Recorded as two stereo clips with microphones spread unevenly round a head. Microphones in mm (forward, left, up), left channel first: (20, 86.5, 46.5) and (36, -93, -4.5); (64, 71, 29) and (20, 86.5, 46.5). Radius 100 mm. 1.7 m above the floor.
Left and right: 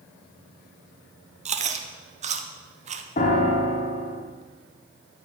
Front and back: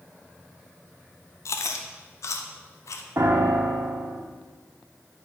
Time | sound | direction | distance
1.4 | chewing | 30° right | 0.6 m
3.2 | a piano | 145° left | 0.8 m